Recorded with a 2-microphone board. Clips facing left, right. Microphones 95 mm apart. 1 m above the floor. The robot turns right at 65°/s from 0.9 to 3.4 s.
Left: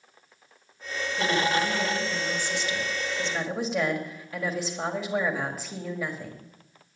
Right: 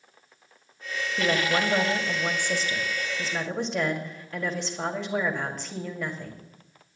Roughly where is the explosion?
No explosion in this recording.